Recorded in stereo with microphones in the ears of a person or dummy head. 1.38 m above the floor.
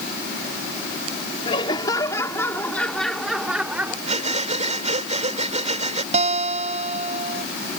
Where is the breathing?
40° right (ahead or behind).